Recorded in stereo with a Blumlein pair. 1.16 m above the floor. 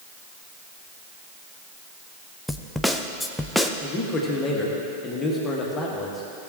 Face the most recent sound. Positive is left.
turn(degrees=15)